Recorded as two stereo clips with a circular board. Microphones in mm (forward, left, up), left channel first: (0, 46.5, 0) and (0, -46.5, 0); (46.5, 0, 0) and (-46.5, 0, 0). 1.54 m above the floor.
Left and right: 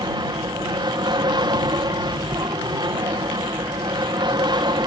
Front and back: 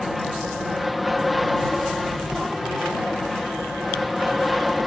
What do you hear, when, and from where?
0.0 s an aircraft: 90° right